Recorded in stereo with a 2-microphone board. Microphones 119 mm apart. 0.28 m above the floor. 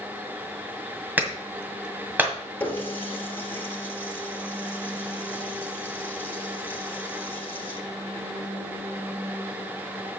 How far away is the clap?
About 1.8 m.